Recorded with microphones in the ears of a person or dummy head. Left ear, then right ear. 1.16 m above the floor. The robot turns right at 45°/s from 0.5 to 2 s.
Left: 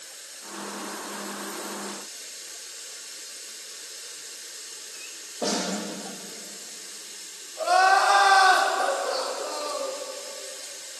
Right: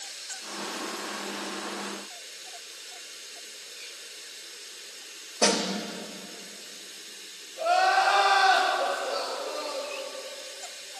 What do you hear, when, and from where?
0.0 s running water: 35° right, 1.4 m; by 11.0 s 35° left, 1.4 m
5.4 s a snare drum: 65° right (ahead or behind), 1.1 m
7.6 s crying: 70° left (ahead or behind), 1.6 m